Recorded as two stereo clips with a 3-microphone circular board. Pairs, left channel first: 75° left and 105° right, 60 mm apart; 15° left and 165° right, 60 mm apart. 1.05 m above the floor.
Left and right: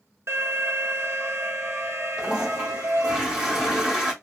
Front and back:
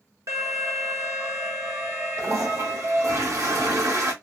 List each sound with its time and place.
0.3 s an alarm: 145° right, 1.0 m
2.2 s a toilet flushing: straight behind, 1.3 m